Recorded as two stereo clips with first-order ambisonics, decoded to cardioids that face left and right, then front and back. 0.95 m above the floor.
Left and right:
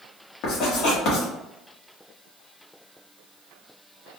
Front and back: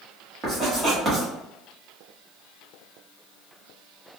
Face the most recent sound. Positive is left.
turn(degrees=115)